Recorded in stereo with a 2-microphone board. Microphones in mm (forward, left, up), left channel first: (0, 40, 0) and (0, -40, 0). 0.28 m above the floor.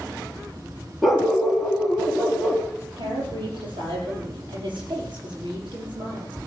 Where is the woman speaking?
80° right, 7 m.